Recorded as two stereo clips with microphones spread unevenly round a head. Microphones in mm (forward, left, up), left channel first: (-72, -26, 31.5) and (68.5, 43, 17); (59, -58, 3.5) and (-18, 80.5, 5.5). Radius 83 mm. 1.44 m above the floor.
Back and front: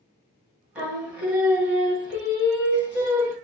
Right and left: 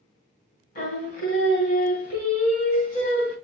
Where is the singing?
60° right, 1.9 m.